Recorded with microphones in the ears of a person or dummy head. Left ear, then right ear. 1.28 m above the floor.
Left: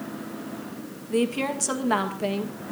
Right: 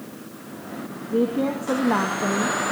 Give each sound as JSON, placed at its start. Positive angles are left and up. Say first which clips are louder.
{"t": 1.1, "sound": "a woman speaking", "louder": "right 2 dB", "side_deg": 60, "distance_m": 2.0}